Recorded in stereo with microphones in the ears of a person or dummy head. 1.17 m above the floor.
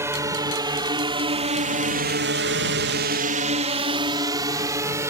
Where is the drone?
15° right (ahead or behind); by 5.1 s 20° right (ahead or behind).